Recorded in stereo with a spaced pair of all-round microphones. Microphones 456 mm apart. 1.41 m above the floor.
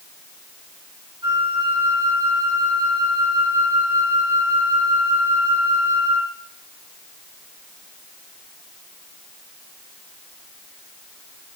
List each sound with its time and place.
1.2 s a flute: 10° right (ahead or behind), 4 m